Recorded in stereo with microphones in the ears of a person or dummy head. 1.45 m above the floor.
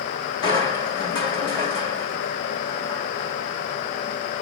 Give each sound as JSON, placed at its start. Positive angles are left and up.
{"t": 0.4, "sound": "crushing", "side_deg": 30, "distance_m": 1.9}